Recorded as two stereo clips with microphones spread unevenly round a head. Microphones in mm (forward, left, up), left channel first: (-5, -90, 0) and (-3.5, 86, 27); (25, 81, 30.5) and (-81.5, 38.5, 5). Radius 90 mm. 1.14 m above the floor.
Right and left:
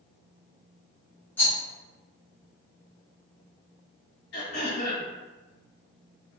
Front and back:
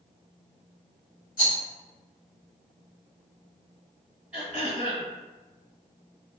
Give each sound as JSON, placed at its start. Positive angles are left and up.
{"t": 1.4, "sound": "a rattle", "azimuth_deg": -10, "distance_m": 1.1}
{"t": 4.3, "sound": "throat clearing", "azimuth_deg": -65, "distance_m": 1.6}